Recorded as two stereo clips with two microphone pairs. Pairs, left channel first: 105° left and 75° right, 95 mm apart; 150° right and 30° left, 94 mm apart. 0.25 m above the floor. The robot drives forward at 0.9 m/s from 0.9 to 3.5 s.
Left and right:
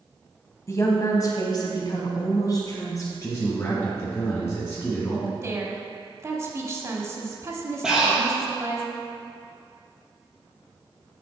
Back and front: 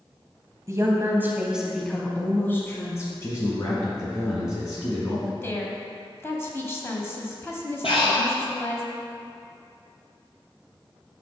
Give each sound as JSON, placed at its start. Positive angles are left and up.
{"t": 0.7, "sound": "a woman speaking", "azimuth_deg": 65, "distance_m": 1.2}
{"t": 3.2, "sound": "a man speaking", "azimuth_deg": 160, "distance_m": 1.8}
{"t": 5.3, "sound": "a woman speaking", "azimuth_deg": -110, "distance_m": 1.3}
{"t": 7.8, "sound": "breathing", "azimuth_deg": -160, "distance_m": 2.5}